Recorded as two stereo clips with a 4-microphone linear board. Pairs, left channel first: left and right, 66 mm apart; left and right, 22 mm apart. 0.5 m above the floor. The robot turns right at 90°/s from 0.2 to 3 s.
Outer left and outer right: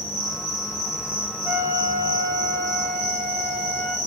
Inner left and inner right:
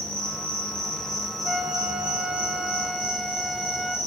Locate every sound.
0.0 s an insect: 65° left, 0.9 m; by 4.1 s 45° right, 0.9 m
1.4 s a flute: 155° right, 0.8 m; by 4.0 s 15° right, 0.8 m